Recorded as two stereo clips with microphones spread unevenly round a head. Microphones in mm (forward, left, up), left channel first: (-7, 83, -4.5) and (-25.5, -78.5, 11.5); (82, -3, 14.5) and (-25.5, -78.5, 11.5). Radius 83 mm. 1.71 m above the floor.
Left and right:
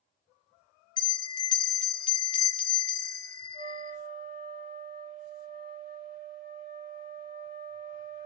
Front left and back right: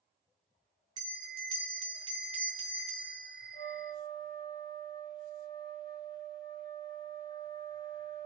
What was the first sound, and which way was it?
A bell, 150° left.